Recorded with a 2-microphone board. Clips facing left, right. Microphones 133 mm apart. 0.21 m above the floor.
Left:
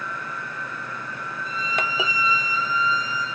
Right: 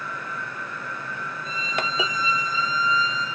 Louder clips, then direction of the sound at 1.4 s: Left 1 dB; 65° left (ahead or behind).